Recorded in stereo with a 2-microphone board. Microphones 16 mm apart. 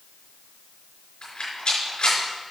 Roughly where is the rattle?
Left.